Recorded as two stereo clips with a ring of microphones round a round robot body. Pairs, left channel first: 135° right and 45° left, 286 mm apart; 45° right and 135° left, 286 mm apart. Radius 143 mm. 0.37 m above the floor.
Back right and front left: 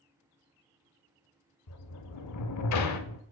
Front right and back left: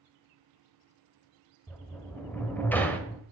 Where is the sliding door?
130° right, 0.9 m.